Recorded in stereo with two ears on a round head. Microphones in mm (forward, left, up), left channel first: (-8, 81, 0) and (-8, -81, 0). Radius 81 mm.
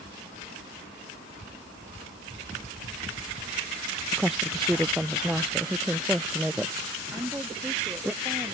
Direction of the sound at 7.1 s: 10° right (ahead or behind).